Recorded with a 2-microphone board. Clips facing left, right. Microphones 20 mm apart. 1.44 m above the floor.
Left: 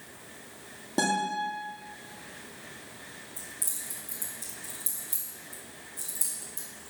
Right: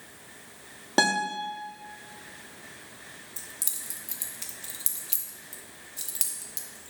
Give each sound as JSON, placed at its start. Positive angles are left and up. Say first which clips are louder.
{"t": 1.0, "sound": "a guitar", "louder": "right 3 dB", "side_deg": -55, "distance_m": 3.0}
{"t": 3.4, "sound": "keys jangling", "louder": "right 1 dB", "side_deg": -75, "distance_m": 1.3}